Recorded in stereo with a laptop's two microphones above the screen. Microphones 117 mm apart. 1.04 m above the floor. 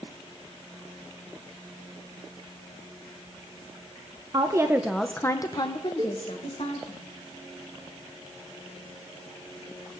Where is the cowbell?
50° right (ahead or behind), 1.1 m.